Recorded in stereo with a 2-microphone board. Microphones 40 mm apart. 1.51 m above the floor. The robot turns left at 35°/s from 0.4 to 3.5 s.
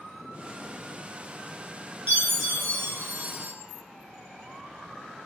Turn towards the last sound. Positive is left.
turn(degrees=-115)